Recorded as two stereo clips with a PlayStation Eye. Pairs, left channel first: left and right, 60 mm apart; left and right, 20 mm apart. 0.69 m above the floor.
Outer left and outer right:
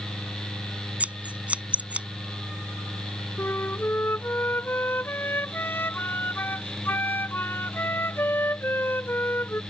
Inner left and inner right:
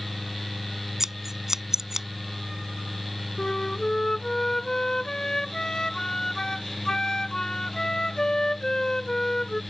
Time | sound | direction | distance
1.0 | scissors | 25° right (ahead or behind) | ?
3.4 | a flute | 40° left (ahead or behind) | ?